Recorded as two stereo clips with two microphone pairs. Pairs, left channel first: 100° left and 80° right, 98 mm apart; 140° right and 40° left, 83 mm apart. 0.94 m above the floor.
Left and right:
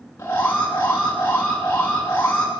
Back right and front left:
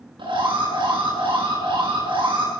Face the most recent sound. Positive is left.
turn(degrees=35)